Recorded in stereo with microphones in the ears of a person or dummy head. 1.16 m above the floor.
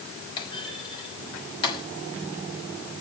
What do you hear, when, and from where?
0.4 s a clunk: 20° left (ahead or behind), 6 m